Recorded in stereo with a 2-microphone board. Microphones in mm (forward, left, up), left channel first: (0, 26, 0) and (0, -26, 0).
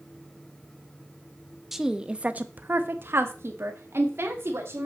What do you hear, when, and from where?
1.7 s a woman speaking: 5° right (ahead or behind), 0.9 m; by 4.9 s 55° right (ahead or behind), 2 m